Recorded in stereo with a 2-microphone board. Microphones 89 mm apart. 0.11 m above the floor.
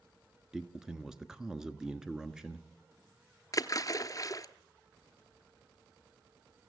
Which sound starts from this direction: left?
A splash, at 3.5 s.